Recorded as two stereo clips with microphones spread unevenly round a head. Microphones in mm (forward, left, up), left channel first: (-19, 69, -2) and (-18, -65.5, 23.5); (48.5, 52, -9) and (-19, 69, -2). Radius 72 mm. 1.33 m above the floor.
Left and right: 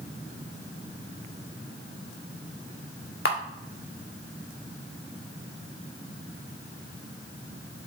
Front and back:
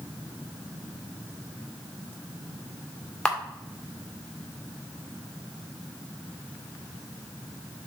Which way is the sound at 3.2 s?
65° left.